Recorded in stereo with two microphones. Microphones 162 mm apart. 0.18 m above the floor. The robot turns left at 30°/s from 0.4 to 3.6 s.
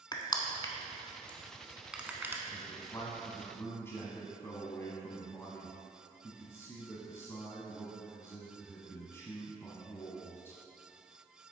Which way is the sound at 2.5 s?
65° left.